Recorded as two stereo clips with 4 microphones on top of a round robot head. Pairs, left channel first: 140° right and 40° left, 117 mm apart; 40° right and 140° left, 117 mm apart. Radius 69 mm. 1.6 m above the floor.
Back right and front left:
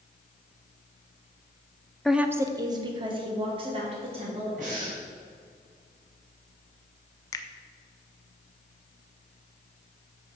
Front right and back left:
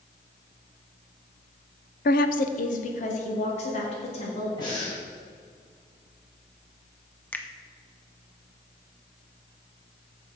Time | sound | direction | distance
2.0 | a woman speaking | 55° right | 0.6 m
4.6 | breathing | 15° left | 4 m
7.3 | a finger snap | 105° right | 0.5 m